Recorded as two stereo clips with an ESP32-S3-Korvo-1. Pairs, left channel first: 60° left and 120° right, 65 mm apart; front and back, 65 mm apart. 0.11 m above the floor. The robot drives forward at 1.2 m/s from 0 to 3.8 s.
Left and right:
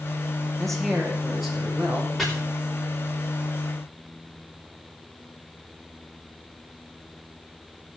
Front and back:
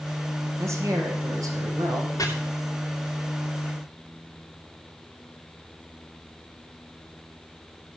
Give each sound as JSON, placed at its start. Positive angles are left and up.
{"t": 0.6, "sound": "a man speaking", "azimuth_deg": 145, "distance_m": 2.5}
{"t": 2.2, "sound": "chopping", "azimuth_deg": -30, "distance_m": 3.0}